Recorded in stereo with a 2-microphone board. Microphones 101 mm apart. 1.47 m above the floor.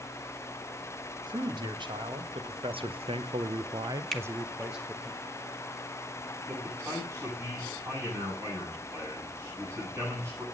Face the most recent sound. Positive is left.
turn(degrees=-35)  # may be behind; listen again after turning